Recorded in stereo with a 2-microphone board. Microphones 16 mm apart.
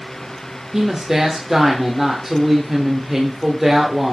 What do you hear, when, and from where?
0.7 s a woman speaking: 20° right (ahead or behind), 1.2 m